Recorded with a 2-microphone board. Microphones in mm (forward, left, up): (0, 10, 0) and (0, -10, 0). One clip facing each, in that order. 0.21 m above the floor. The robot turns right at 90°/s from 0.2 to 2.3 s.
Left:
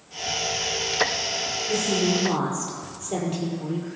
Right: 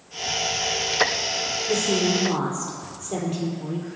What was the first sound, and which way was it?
A woman speaking, 50° right.